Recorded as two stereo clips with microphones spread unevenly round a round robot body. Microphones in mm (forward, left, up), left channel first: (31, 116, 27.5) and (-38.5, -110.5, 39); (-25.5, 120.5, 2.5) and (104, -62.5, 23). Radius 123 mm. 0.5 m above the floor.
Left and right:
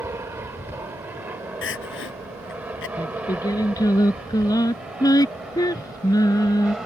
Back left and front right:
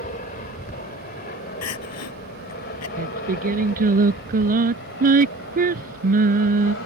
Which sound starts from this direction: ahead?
Singing, at 3.0 s.